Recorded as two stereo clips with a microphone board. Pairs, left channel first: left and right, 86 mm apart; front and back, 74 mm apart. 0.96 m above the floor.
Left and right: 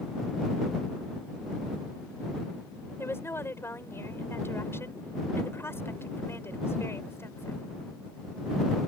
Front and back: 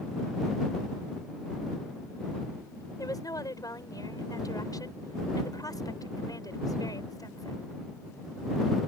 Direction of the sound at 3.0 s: 30° left.